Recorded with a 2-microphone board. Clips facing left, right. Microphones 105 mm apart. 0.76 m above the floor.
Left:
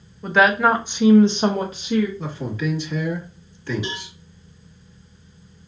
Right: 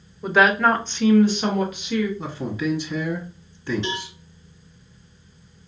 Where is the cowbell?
10° left (ahead or behind), 1.7 m.